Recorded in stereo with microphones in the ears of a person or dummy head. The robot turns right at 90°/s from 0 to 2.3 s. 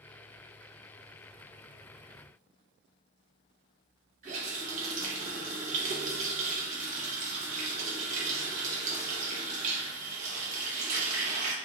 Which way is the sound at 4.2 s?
40° right (ahead or behind).